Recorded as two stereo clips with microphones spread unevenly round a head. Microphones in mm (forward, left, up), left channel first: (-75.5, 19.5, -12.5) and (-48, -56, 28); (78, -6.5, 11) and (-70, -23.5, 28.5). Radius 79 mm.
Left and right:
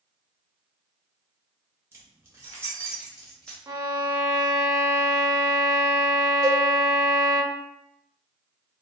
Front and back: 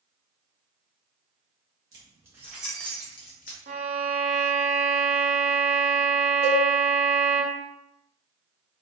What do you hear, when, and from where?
1.9 s keys jangling: 110° right, 1.1 m; by 3.6 s 5° left, 0.6 m
3.7 s a violin: 125° right, 0.5 m
6.4 s a cowbell: 100° right, 1.0 m